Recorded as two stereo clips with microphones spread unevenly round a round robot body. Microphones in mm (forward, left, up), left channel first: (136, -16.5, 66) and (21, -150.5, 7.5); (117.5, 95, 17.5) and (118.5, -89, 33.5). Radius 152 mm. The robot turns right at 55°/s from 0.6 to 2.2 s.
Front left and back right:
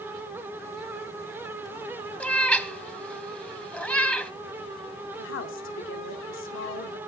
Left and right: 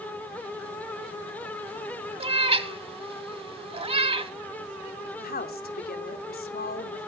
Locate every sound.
2.2 s a cat meowing: 30° right, 1.5 m
5.2 s a woman speaking: 65° left, 2.5 m